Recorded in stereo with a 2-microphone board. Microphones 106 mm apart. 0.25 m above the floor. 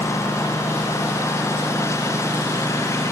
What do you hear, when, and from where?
0.0 s a lawn mower: 25° left (ahead or behind)